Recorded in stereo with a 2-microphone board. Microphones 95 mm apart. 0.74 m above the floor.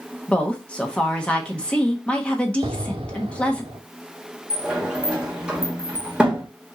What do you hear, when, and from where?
0.3 s a woman speaking: 10° left (ahead or behind), 1.1 m
2.6 s an explosion: 80° right, 0.7 m
4.5 s a sliding door: 10° right (ahead or behind), 1.3 m